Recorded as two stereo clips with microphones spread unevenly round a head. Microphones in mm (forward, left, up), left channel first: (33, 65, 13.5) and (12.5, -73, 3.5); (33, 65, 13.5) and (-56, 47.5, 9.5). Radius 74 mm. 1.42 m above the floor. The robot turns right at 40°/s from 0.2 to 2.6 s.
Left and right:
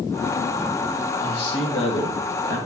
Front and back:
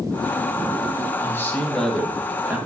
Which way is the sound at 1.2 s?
70° left.